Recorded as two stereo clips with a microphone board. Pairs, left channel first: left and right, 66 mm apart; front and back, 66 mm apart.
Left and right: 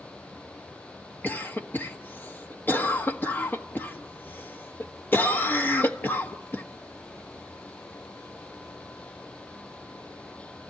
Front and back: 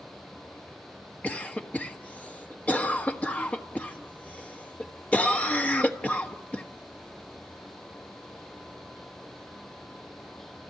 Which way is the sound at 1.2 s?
50° left.